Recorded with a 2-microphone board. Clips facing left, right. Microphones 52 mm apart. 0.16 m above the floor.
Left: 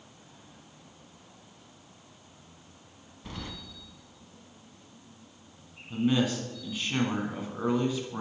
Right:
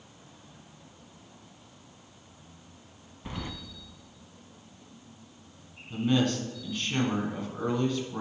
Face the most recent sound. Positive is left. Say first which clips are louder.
# even
turn(degrees=10)  # may be behind; listen again after turning